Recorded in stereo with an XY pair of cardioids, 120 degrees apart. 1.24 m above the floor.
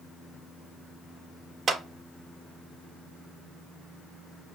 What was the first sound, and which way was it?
A clap, 40° right.